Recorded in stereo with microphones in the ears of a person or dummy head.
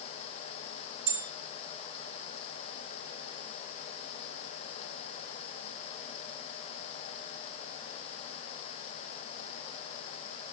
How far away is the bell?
About 6 m.